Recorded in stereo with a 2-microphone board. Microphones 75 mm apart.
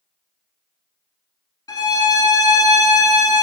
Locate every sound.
1.7 s a violin: 65° left (ahead or behind), 0.5 m